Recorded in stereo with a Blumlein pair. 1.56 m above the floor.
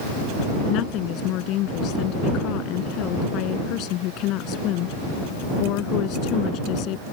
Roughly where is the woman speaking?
Ahead left.